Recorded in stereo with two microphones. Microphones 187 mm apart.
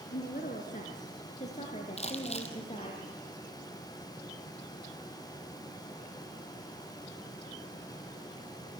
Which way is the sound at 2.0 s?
35° left (ahead or behind).